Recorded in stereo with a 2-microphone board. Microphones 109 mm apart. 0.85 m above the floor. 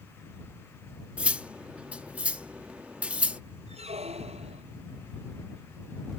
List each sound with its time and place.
1.2 s cutlery clinking: 10° right (ahead or behind)
3.7 s a squeak: 75° right (ahead or behind)